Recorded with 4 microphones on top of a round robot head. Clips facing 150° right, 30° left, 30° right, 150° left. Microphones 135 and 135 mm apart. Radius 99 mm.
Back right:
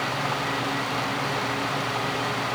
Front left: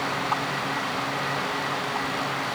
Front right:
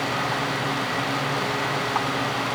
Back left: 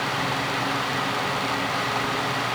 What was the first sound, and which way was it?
Only background noise.